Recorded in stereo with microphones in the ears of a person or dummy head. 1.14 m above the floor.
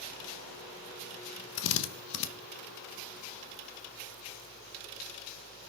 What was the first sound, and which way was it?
A drill, 65° left (ahead or behind).